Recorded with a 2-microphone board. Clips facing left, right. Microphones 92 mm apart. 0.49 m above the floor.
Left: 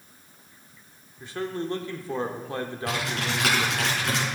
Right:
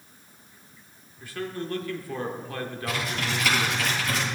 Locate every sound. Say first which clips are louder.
1.2 s a man speaking: left 2 dB; 25° left (ahead or behind), 1.2 m
2.9 s typing on a keyboard: even; 70° left (ahead or behind), 4.5 m